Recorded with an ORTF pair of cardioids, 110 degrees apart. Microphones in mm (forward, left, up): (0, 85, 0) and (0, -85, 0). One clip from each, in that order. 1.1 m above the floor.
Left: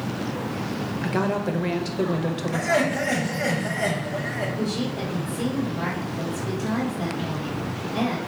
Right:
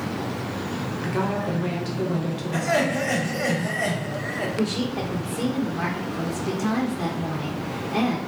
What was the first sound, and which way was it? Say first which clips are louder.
A woman speaking: left 1 dB; 25° left.